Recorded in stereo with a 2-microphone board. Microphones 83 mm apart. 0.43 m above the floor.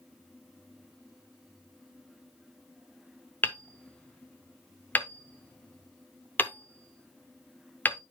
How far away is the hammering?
About 0.7 m.